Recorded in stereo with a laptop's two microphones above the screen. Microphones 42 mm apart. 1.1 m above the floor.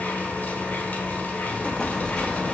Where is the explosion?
25° left (ahead or behind), 0.7 m.